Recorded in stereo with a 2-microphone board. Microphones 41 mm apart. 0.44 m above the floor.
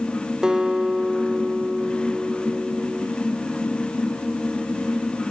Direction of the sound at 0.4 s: 15° right (ahead or behind).